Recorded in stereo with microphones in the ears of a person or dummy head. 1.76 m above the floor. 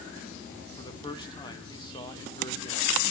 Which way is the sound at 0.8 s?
20° left (ahead or behind).